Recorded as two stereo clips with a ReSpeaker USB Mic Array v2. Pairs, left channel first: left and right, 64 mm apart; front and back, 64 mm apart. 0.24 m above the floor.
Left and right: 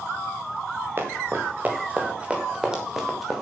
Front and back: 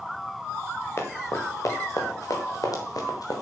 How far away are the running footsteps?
About 5 m.